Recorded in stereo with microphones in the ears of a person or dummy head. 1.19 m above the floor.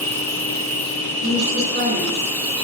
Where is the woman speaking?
60° right (ahead or behind), 3.5 m.